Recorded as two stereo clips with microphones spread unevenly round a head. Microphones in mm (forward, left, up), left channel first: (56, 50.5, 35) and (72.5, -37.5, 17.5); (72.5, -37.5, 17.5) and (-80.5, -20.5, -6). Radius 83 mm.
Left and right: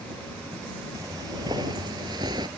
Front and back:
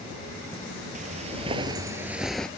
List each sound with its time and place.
0.9 s footsteps: 155° right; by 2.5 s 70° right